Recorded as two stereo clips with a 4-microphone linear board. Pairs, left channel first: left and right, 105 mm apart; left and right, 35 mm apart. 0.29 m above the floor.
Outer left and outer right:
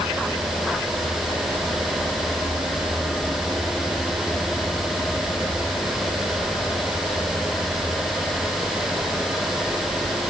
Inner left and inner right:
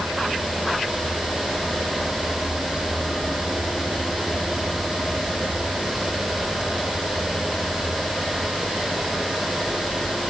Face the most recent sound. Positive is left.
No sound to turn to.